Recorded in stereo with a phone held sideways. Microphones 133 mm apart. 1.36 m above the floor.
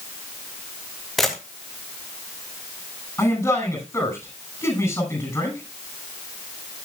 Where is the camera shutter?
Centre (ahead or behind), 3 m.